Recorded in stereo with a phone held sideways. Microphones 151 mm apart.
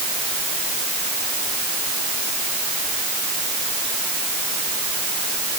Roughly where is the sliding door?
I don't hear a sliding door.